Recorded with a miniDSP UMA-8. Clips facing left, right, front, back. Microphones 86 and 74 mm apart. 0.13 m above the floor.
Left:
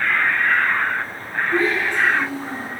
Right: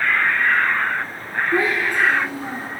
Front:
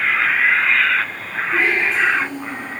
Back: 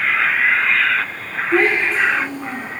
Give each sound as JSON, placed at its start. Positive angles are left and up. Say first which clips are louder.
{"t": 1.5, "sound": "a child speaking", "louder": "even, back 2 dB", "azimuth_deg": -165, "distance_m": 3.0}